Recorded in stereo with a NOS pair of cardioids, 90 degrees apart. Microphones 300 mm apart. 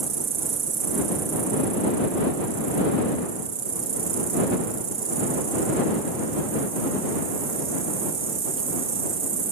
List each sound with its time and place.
0.0 s an insect: 45° right